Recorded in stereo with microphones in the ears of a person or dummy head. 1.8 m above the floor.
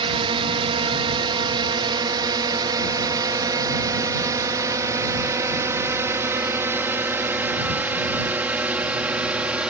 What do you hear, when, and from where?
0.0 s a drone: 35° right (ahead or behind); by 9.7 s 10° right (ahead or behind)